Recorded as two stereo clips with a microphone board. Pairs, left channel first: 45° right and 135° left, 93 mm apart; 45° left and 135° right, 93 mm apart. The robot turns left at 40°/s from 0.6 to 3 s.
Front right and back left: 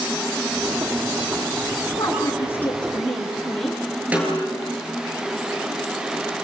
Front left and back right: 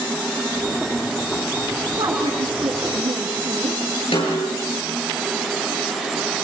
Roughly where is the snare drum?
Ahead left.